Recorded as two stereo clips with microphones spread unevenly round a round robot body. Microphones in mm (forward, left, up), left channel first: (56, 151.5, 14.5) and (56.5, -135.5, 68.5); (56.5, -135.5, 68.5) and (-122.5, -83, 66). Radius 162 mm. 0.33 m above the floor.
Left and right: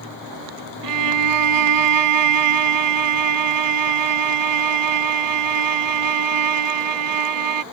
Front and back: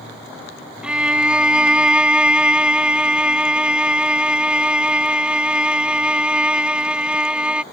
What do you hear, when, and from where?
0.8 s a violin: 110° right